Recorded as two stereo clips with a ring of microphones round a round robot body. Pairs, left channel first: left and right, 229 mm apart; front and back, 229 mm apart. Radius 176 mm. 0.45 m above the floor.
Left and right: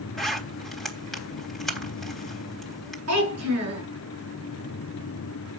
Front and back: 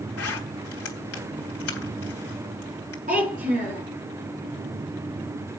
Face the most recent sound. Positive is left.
turn(degrees=-115)